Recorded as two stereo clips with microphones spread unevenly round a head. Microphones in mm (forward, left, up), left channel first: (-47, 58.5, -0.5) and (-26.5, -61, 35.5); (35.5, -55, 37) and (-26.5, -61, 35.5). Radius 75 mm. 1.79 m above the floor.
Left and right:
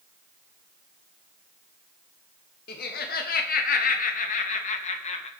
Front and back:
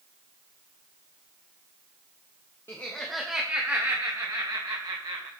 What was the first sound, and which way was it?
Laughter, 80° left.